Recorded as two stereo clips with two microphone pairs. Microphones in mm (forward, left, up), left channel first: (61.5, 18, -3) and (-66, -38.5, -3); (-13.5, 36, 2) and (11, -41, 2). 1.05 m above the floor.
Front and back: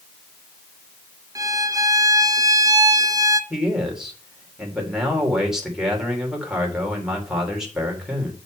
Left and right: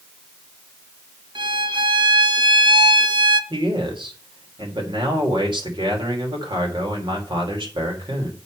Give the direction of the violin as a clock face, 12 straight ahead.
3 o'clock.